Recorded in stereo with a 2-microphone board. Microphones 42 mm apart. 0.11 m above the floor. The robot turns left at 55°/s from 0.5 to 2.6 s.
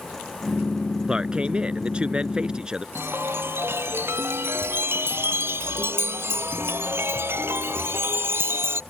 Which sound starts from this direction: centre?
A man speaking, at 1.1 s.